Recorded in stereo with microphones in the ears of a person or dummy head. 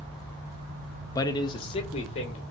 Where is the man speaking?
15° left (ahead or behind), 0.5 m; by 2.4 s 30° left (ahead or behind), 1.6 m.